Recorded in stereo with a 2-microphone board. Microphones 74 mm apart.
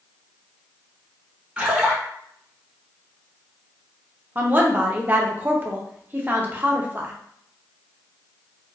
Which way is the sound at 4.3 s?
25° right (ahead or behind).